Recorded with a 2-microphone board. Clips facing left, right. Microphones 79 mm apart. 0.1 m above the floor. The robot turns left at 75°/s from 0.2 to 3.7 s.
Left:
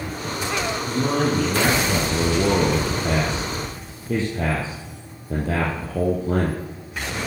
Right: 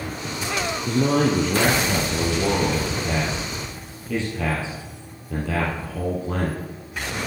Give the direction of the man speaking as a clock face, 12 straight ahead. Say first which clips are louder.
Right 3 dB; 3 o'clock.